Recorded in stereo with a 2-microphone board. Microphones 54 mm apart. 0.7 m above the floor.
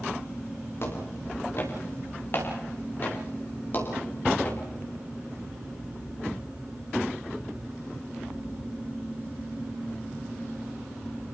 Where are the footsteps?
55° left (ahead or behind), 10 m; by 4.6 s 35° left (ahead or behind), 10 m.